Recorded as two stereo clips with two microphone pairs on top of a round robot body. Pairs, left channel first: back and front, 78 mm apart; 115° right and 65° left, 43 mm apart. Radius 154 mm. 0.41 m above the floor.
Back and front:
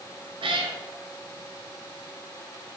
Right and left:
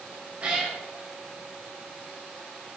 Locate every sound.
0.4 s a cat meowing: 5° left, 1.0 m